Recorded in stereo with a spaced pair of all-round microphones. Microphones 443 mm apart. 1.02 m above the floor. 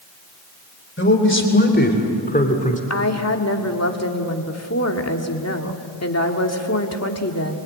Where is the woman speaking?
35° left (ahead or behind), 2 m.